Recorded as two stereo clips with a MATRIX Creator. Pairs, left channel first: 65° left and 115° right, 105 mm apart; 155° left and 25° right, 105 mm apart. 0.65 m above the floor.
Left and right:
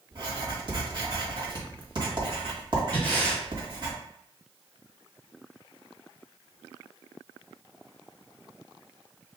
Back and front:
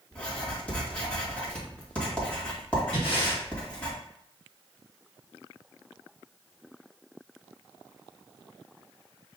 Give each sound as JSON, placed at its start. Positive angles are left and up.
{"t": 0.1, "sound": "writing", "azimuth_deg": -130, "distance_m": 1.6}
{"t": 2.9, "sound": "breathing", "azimuth_deg": 140, "distance_m": 2.5}